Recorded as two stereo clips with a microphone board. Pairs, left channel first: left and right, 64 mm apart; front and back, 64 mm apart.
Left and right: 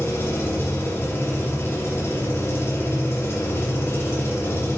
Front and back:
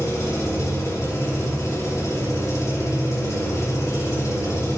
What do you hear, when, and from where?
0.0 s an engine running: 40° left, 3 m